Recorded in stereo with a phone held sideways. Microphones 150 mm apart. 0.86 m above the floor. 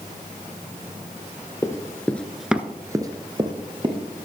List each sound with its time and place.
1.6 s running footsteps: 20° left (ahead or behind), 1.3 m; by 4.0 s 30° right (ahead or behind), 1.9 m